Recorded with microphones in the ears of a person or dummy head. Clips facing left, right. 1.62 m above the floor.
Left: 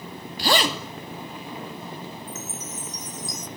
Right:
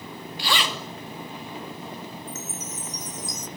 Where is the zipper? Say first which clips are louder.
Left 6 dB; 40° left (ahead or behind), 3 m.